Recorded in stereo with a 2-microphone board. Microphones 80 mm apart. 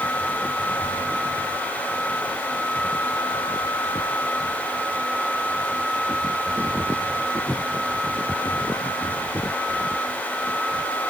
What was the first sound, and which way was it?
Only background noise.